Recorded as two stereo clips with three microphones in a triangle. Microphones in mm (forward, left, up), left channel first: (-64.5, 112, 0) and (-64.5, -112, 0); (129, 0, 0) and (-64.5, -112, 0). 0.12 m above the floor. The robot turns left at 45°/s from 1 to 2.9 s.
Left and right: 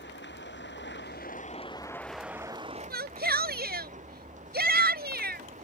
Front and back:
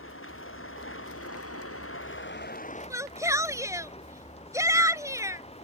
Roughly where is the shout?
Right.